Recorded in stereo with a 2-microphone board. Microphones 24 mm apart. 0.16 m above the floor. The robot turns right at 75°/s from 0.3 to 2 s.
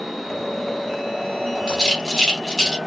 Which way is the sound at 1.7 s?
35° left (ahead or behind).